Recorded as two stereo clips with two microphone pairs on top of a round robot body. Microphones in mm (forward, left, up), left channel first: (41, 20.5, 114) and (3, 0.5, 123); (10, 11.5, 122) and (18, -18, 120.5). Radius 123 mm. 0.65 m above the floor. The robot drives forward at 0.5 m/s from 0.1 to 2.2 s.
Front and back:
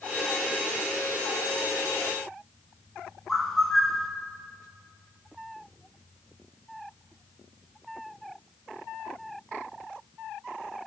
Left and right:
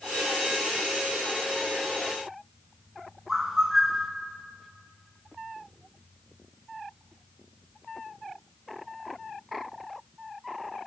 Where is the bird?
15° right, 1.1 m.